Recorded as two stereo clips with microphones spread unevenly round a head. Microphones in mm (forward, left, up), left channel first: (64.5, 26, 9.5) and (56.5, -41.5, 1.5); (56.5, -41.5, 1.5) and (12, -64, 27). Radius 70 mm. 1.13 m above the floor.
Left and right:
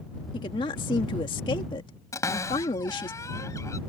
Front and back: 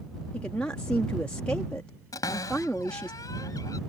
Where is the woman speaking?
100° left.